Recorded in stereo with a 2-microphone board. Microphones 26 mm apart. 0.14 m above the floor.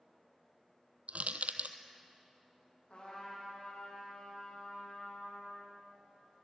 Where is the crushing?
80° right, 0.9 m.